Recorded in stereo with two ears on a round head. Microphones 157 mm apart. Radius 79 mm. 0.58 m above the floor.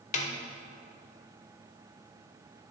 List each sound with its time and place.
0.1 s a snare drum: 45° left (ahead or behind), 1.2 m